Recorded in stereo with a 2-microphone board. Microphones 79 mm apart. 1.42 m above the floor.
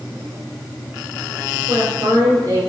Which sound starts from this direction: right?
A woman speaking, at 1.7 s.